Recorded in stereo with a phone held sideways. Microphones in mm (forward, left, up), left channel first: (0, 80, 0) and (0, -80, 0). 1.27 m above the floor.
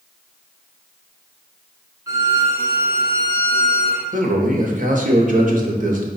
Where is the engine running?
No engine running in this recording.